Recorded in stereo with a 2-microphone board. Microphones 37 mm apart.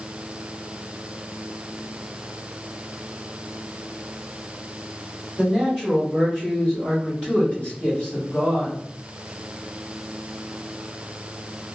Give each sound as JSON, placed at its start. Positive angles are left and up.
{"t": 5.4, "sound": "a man speaking", "side_deg": 10, "distance_m": 1.6}